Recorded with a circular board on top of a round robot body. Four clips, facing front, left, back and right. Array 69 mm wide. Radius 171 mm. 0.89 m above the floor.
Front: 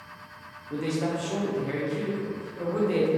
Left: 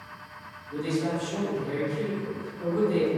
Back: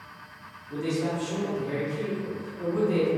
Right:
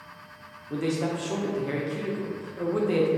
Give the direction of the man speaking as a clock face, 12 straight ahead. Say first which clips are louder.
Right 1 dB, even; 2 o'clock.